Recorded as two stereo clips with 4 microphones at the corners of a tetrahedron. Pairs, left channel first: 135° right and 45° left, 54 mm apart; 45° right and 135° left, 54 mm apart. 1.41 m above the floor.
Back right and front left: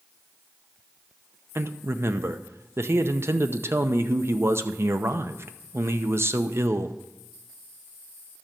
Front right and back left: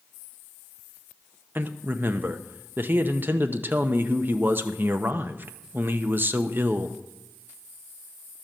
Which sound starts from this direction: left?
A man speaking, at 1.6 s.